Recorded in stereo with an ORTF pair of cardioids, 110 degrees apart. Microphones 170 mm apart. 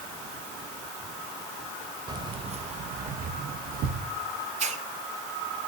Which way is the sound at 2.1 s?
25° right.